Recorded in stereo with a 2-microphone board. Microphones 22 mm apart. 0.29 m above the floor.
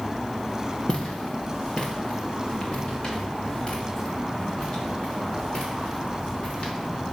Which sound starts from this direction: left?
Footsteps, at 0.9 s.